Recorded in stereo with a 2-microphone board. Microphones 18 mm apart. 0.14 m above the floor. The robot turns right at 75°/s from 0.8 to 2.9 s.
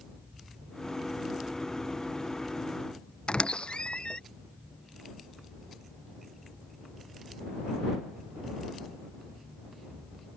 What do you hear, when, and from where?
3.3 s a squeak: 65° left (ahead or behind)